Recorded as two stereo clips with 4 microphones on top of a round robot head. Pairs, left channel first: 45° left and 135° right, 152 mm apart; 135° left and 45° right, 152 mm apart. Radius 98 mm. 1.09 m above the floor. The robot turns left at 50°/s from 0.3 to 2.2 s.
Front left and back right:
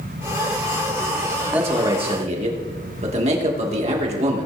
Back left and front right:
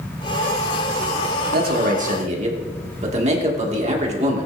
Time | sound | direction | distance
1.5 | a man speaking | 55° right | 2.5 m